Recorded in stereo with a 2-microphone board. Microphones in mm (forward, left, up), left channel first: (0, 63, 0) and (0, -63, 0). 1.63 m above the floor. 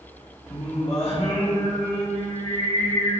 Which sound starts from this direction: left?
Singing, at 0.5 s.